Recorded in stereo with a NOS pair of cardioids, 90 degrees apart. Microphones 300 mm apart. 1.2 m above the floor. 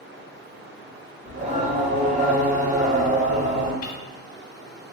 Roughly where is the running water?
Ahead right.